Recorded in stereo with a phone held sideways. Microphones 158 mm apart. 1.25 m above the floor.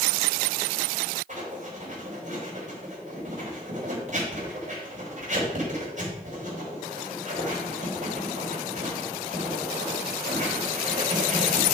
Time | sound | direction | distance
1.3 | writing | 50° right (ahead or behind) | 4 m